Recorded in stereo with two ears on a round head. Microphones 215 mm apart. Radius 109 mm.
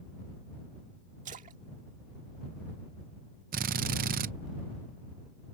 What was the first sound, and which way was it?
A splash, 30° right (ahead or behind).